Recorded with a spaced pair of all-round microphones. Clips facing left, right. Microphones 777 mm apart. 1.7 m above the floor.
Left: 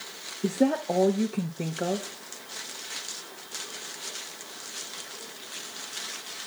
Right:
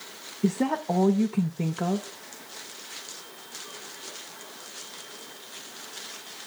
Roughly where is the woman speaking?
Right.